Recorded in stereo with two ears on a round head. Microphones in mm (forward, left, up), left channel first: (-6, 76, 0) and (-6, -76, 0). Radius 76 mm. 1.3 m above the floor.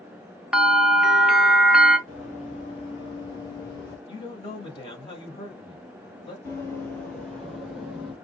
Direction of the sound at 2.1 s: 45° left (ahead or behind).